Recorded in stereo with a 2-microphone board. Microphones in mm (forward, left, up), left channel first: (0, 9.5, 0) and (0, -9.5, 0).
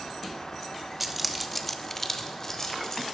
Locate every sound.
1.0 s keys jangling: 10° right (ahead or behind), 0.7 m; by 3.0 s 25° left (ahead or behind), 1.5 m